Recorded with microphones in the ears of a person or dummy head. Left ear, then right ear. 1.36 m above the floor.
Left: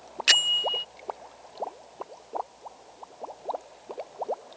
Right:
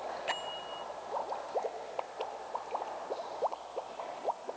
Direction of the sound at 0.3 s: 60° left (ahead or behind).